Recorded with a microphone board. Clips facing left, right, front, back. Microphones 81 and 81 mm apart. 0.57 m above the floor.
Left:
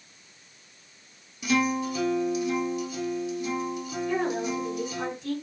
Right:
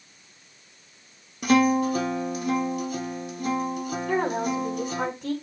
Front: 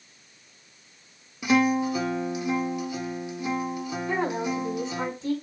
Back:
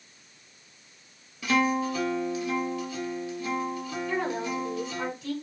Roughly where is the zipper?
I don't hear a zipper.